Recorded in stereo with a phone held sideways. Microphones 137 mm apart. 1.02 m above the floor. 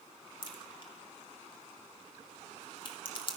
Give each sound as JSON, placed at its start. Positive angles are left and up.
{"t": 0.4, "sound": "a crack", "side_deg": 40, "distance_m": 1.7}